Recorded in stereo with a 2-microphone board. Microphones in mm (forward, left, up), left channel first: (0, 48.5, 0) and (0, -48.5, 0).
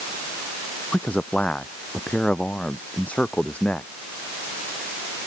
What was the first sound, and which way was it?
A man speaking, 10° left (ahead or behind).